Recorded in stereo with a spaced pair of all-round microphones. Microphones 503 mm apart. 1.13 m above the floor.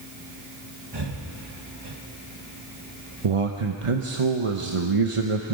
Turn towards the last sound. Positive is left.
turn(degrees=-80)